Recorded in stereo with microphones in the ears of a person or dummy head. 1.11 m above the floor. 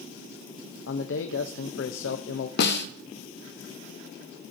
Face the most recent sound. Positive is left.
turn(degrees=70)  # may be behind; listen again after turning